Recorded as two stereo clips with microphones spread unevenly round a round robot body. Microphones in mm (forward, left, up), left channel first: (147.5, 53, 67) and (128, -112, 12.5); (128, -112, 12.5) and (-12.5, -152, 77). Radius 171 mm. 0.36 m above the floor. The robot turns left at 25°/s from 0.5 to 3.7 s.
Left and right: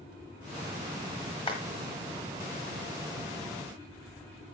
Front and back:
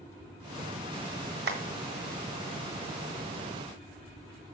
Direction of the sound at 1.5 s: 160° left.